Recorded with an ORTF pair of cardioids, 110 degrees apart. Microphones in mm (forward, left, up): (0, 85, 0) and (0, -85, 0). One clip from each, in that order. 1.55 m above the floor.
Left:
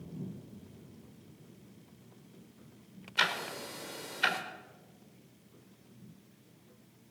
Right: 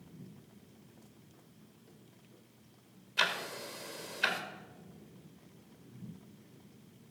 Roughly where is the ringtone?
No ringtone in this recording.